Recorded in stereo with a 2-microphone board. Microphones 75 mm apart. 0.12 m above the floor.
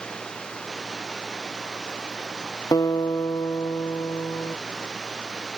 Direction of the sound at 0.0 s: 10° left (ahead or behind).